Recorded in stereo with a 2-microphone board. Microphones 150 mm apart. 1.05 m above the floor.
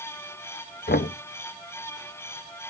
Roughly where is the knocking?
Left.